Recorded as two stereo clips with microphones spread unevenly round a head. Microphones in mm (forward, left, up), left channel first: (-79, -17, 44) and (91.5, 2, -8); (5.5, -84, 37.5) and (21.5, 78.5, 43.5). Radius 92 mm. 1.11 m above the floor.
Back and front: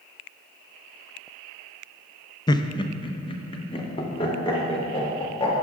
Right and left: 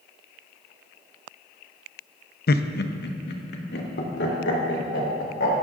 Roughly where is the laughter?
Right.